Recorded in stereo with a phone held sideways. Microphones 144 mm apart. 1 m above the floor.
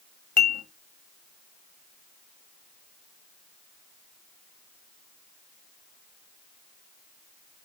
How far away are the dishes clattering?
About 1.0 m.